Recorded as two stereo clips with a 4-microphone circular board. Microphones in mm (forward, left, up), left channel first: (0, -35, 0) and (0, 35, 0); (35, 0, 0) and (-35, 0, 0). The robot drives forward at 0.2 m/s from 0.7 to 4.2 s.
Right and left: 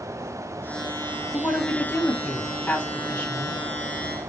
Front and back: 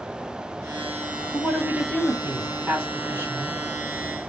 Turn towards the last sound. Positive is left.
turn(degrees=-155)